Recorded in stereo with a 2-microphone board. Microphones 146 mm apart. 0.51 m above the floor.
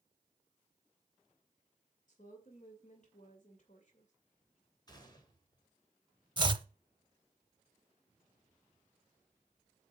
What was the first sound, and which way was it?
A woman speaking, 55° left (ahead or behind).